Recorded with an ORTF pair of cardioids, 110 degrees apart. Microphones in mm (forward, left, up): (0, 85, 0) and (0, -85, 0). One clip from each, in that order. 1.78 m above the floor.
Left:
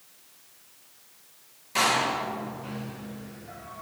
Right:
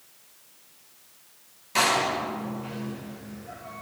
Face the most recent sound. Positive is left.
turn(degrees=-10)